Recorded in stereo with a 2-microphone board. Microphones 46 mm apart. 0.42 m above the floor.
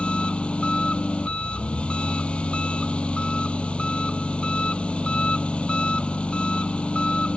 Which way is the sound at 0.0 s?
25° left (ahead or behind).